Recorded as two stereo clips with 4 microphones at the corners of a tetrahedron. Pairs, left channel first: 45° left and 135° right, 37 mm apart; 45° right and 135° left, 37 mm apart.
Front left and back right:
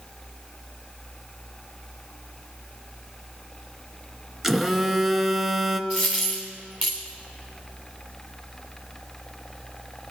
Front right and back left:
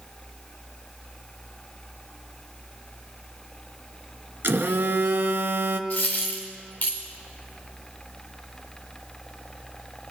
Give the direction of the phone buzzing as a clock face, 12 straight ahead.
7 o'clock.